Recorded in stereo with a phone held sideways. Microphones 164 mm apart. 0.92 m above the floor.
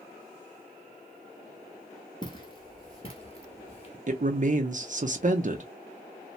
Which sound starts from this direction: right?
A man speaking, at 4.1 s.